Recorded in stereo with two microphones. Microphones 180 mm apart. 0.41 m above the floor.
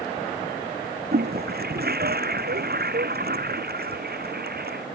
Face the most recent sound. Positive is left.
turn(degrees=-60)  # may be behind; listen again after turning